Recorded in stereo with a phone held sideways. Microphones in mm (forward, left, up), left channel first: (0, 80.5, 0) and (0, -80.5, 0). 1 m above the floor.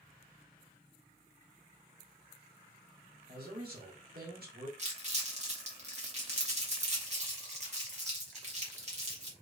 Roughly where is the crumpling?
Right.